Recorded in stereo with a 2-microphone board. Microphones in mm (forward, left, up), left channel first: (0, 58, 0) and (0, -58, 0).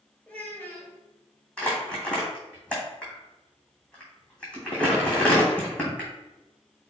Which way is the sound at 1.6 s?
10° left (ahead or behind).